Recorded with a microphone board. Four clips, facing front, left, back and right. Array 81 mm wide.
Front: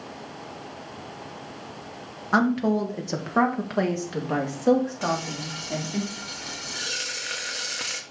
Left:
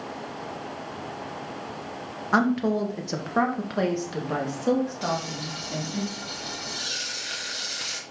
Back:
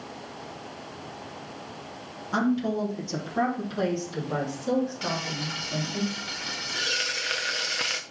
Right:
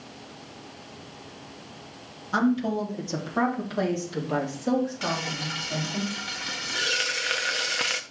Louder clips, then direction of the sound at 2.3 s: Left 2 dB, front 4 dB; 50° left.